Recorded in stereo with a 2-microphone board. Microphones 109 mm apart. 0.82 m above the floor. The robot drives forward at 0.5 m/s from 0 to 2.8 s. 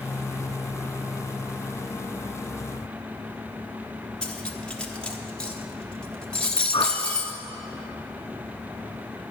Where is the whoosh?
50° left (ahead or behind), 1.2 m.